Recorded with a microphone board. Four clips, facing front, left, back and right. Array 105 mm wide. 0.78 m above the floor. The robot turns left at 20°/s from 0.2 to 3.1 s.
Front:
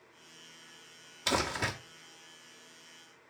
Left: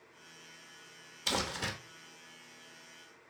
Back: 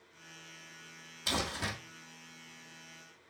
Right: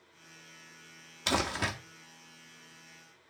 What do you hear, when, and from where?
1.3 s crumpling: 70° right, 1.8 m; by 1.7 s 80° right, 1.8 m